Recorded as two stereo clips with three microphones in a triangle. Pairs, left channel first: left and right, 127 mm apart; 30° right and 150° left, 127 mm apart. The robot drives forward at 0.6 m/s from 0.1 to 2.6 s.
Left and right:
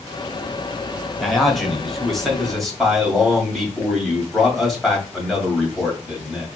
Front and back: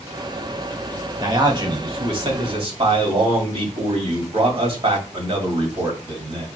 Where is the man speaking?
Straight behind, 1.2 m.